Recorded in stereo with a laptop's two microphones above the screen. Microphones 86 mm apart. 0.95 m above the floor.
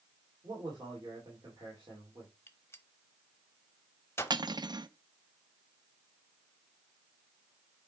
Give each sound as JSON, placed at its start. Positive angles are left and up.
{"t": 0.4, "sound": "a man speaking", "side_deg": -50, "distance_m": 2.5}
{"t": 2.5, "sound": "a gunshot", "side_deg": 30, "distance_m": 1.0}
{"t": 4.3, "sound": "cutlery clinking", "side_deg": -55, "distance_m": 0.6}